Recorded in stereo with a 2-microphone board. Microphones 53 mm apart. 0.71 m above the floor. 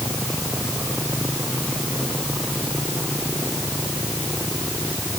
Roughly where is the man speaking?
I don't hear a man speaking.